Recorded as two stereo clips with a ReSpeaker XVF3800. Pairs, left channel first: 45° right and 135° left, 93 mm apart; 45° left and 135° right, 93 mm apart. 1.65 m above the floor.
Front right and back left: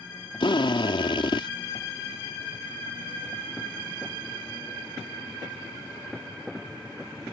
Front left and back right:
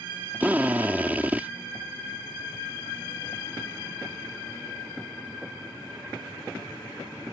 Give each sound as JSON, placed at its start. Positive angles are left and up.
{"t": 0.4, "sound": "a drill", "azimuth_deg": -65}